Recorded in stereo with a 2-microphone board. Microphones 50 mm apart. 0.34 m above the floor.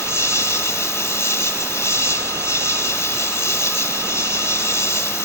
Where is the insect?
70° left (ahead or behind), 1.3 m.